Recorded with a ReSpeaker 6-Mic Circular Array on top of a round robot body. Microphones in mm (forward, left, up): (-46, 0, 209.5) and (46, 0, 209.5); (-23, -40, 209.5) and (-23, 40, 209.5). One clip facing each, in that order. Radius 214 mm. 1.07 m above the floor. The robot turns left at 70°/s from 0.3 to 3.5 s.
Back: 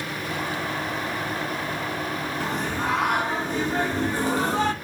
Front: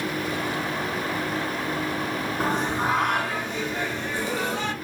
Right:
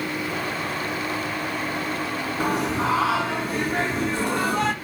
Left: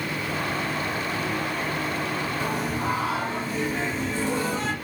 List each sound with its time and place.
2.4 s singing: 50° right, 1.1 m; by 4.7 s 125° right, 1.1 m